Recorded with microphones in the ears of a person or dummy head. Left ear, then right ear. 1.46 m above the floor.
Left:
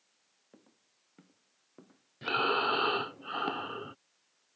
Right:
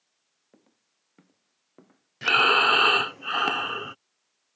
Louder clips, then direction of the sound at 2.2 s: Right 10 dB; 55° right (ahead or behind).